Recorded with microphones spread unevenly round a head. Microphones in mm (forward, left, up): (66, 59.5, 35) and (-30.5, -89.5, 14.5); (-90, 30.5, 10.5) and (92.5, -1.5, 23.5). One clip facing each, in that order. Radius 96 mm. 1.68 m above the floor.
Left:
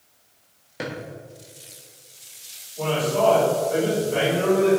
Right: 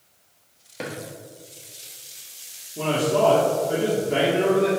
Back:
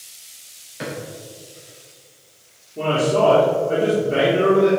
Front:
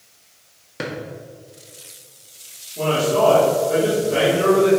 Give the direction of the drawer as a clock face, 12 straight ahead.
1 o'clock.